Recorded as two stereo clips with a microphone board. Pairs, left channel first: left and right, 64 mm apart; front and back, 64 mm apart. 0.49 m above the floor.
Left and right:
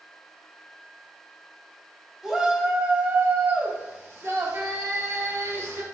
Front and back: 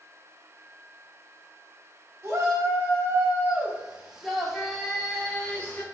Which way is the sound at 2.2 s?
165° right.